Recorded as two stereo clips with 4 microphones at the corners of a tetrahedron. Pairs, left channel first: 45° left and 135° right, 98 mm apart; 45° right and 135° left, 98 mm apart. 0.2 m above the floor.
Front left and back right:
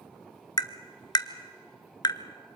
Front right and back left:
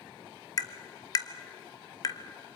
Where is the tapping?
Straight ahead, 1.0 m.